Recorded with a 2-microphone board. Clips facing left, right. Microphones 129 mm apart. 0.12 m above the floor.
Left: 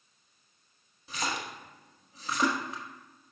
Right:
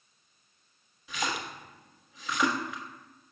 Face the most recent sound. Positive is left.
turn(degrees=35)  # may be behind; listen again after turning